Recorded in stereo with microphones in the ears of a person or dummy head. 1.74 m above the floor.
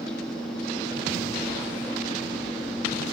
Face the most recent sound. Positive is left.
turn(degrees=5)  # may be behind; listen again after turning